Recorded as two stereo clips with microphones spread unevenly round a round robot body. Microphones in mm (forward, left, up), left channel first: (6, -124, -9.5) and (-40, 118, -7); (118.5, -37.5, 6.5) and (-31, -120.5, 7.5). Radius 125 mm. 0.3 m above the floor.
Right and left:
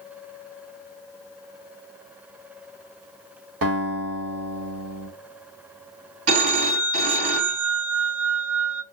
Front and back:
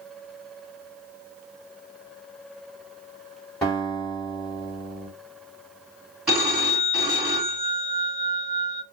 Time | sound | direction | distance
3.6 | a guitar | 115° left | 2.0 m
6.3 | a phone ringing | 120° left | 1.9 m